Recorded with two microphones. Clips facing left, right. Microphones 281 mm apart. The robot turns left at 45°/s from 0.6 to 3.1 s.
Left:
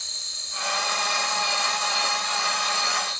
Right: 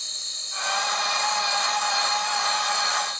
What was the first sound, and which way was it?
An insect, 80° left.